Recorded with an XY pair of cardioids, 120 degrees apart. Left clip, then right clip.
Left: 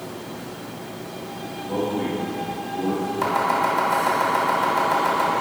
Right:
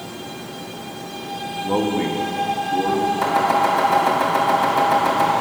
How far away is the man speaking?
About 1.3 m.